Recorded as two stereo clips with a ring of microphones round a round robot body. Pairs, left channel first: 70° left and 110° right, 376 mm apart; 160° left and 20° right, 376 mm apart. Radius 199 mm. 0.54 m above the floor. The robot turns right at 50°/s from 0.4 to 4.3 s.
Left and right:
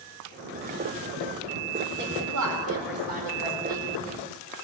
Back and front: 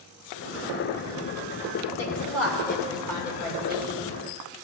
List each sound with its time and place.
2.0 s a woman speaking: 175° right, 2 m; by 3.9 s 80° right, 2 m